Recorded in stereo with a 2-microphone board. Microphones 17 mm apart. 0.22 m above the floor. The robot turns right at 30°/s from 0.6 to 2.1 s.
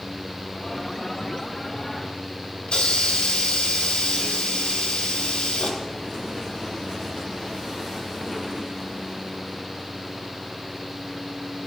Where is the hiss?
75° left (ahead or behind), 1.3 m.